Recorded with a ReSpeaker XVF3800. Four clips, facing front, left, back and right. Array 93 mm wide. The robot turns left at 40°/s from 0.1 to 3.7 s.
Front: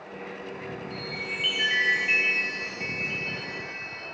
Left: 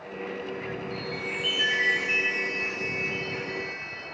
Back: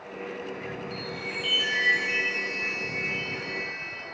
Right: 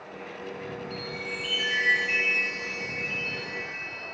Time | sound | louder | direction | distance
0.9 | a chime | left 2 dB, even | 50° left | 2 m